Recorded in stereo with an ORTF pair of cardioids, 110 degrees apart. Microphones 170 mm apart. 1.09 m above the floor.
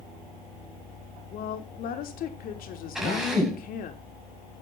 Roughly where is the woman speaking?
Ahead left.